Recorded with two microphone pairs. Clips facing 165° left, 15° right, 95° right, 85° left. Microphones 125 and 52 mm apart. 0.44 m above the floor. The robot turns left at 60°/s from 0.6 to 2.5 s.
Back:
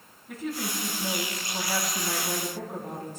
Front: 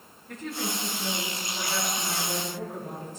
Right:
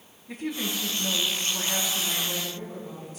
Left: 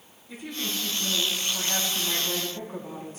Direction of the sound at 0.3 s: 110° right.